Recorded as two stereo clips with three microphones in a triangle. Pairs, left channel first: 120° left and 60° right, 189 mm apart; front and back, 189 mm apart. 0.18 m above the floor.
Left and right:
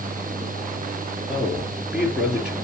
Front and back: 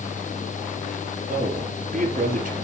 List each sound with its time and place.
1.3 s a man speaking: 145° right, 3.5 m